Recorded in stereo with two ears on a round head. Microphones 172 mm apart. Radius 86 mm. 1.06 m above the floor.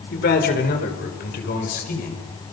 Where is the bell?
I don't hear a bell.